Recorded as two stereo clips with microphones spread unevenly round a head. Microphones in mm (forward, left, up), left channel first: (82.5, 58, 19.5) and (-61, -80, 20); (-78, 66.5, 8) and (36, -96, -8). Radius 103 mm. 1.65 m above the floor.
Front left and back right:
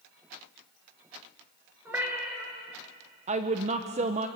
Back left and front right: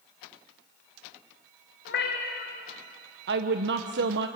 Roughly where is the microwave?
I don't hear a microwave.